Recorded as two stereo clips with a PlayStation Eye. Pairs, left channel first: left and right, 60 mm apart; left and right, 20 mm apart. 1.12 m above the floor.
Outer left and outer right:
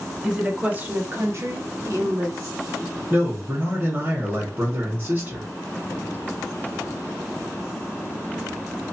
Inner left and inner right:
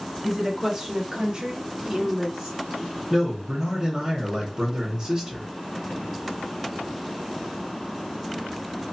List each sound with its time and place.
0.2 s a woman speaking: 10° right (ahead or behind), 1.1 m; by 2.6 s 50° right (ahead or behind), 1.2 m
3.1 s a man speaking: 30° right (ahead or behind), 1.3 m